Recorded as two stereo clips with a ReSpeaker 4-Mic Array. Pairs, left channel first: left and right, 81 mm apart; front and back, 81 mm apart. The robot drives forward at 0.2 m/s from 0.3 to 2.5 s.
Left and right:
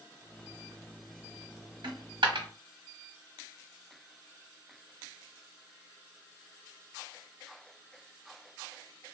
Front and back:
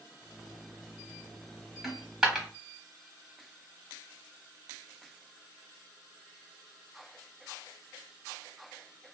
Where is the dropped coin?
95° right, 1.0 m; by 2.5 s 100° right, 1.0 m.